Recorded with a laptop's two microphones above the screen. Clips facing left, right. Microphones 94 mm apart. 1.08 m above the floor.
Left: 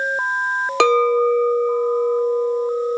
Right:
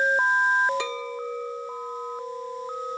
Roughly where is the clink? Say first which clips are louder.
Left 17 dB; left.